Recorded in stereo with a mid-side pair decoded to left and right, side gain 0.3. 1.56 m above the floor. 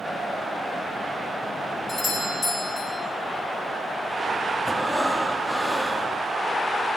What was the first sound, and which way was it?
A doorbell, 40° left.